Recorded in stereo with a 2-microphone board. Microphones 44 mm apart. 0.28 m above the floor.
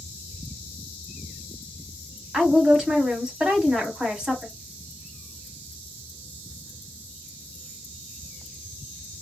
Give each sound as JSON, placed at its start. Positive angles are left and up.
{"t": 2.3, "sound": "a woman speaking", "side_deg": -15, "distance_m": 1.7}